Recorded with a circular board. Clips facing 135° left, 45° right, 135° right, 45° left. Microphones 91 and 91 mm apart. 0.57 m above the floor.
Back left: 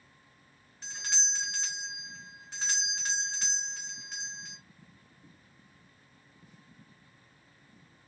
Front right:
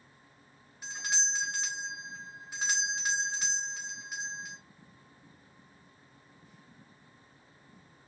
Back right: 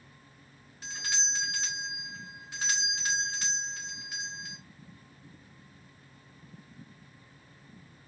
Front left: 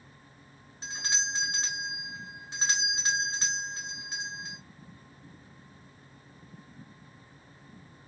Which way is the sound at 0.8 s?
25° left.